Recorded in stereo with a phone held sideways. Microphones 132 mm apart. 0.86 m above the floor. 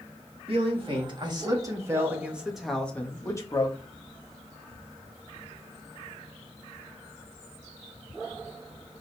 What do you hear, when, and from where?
0.5 s a man speaking: 45° right (ahead or behind), 1.8 m; by 3.8 s 35° left (ahead or behind), 1.2 m